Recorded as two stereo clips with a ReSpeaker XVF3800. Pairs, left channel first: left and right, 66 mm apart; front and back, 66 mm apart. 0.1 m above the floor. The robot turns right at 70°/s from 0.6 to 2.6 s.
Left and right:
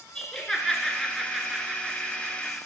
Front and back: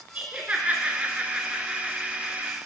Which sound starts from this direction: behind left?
Laughter, at 0.1 s.